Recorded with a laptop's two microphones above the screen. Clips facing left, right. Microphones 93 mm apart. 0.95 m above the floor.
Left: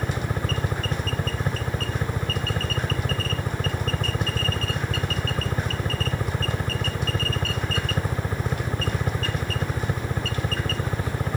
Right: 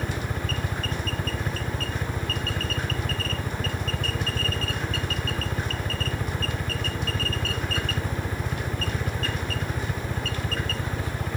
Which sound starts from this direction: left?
A helicopter, at 0.0 s.